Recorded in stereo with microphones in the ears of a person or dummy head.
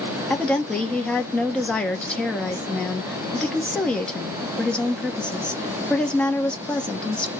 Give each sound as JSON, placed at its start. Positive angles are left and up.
{"t": 0.3, "sound": "a woman speaking", "side_deg": 5, "distance_m": 0.7}